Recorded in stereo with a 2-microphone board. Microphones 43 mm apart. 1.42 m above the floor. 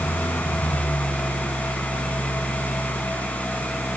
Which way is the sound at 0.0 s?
65° left (ahead or behind).